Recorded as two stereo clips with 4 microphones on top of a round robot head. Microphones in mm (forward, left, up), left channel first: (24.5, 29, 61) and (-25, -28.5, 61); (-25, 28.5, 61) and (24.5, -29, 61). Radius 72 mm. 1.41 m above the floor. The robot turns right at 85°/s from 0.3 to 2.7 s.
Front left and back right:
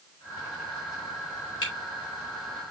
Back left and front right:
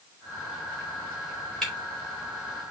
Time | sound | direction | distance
1.6 | a camera shutter | 45° left | 4.5 m